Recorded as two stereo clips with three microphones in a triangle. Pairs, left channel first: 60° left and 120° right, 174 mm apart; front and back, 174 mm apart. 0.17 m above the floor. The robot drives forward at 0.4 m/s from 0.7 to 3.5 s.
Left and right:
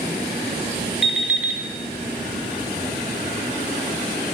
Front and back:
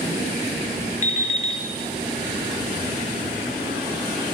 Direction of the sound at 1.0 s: 30° right.